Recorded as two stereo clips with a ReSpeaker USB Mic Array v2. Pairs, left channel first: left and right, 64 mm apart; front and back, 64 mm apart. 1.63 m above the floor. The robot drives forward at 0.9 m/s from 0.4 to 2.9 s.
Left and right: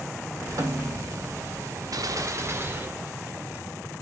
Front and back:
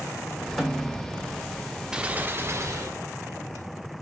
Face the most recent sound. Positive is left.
turn(degrees=-145)